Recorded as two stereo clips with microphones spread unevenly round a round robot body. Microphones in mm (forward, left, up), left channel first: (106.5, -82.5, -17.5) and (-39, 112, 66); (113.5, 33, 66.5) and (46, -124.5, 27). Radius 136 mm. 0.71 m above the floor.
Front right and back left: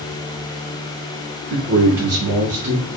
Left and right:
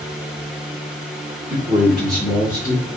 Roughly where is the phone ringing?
I don't hear a phone ringing.